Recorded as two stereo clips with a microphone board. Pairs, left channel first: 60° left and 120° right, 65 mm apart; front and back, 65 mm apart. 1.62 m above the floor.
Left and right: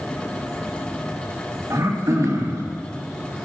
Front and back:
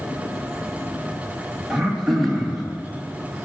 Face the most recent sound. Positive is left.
turn(degrees=-95)